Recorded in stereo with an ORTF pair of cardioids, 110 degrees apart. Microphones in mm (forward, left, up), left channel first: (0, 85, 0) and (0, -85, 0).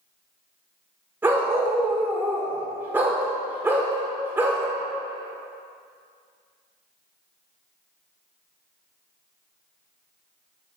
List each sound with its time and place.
1.2 s a dog barking: 10° right, 1.3 m